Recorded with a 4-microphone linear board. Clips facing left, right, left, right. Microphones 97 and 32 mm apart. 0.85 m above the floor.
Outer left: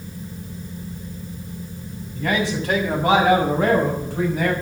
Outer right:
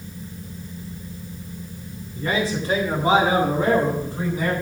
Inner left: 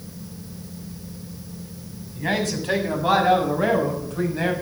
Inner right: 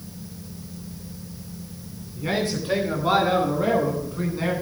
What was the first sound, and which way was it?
A man speaking, 80° left.